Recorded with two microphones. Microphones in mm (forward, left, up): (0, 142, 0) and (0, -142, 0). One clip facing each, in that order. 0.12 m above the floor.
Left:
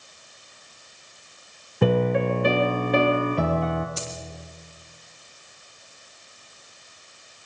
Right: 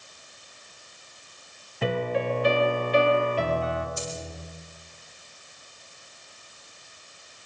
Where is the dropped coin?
85° left, 3.5 m.